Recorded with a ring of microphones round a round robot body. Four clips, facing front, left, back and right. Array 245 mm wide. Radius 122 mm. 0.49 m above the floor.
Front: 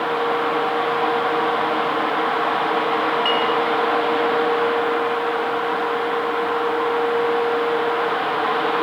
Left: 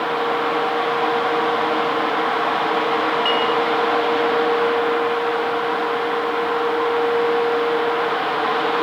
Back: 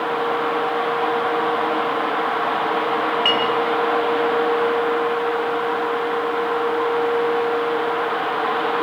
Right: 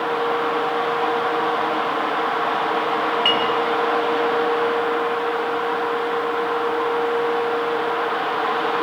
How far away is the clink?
About 8.5 m.